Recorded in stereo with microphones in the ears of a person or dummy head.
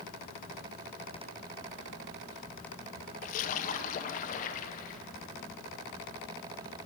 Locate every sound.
3.2 s a splash: 45° left (ahead or behind), 1.1 m